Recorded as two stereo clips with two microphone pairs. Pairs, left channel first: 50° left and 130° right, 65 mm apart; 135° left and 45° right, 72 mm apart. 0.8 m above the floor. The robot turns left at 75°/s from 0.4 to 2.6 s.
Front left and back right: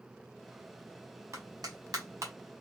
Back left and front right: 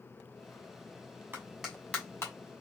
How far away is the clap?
About 1.2 m.